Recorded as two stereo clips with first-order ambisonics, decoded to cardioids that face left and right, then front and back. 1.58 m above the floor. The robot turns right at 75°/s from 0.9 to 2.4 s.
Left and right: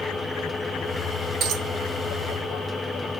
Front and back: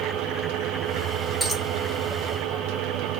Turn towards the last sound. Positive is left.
turn(degrees=-30)